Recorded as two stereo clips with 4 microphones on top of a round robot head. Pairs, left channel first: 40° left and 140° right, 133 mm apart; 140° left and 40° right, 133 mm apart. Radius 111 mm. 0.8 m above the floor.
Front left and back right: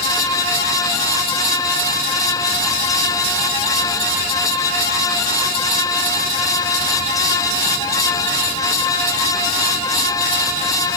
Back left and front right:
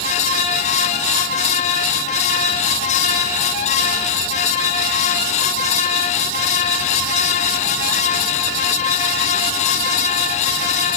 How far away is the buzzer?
No buzzer in this recording.